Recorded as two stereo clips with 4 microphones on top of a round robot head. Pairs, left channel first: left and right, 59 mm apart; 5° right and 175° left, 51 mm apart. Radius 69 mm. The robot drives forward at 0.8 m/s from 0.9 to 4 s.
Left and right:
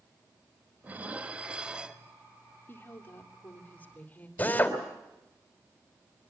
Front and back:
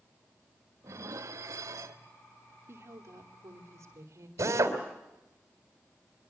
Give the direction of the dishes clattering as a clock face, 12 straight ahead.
5 o'clock.